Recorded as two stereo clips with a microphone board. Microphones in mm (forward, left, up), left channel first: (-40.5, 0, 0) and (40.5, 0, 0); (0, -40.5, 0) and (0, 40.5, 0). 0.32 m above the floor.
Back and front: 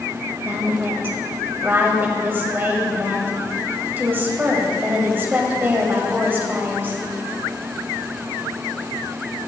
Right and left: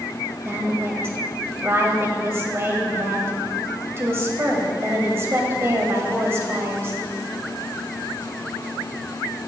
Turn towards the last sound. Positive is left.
turn(degrees=50)